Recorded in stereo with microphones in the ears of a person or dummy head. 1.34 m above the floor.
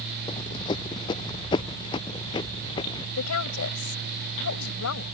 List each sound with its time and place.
0.3 s running footsteps: 30° left (ahead or behind); by 3.1 s 25° left (ahead or behind)
3.2 s a woman speaking: 80° left